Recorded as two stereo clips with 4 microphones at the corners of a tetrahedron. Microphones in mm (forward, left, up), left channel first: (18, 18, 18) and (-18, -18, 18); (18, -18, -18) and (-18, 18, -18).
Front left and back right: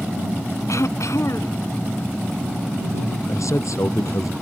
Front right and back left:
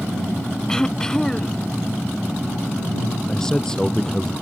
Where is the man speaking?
35° left.